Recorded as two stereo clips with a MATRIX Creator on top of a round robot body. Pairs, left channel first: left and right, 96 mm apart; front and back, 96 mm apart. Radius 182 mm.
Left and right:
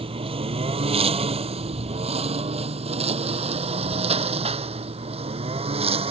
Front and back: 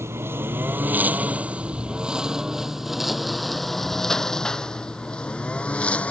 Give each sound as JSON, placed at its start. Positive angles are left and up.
{"t": 0.0, "sound": "a lawn mower", "azimuth_deg": -115}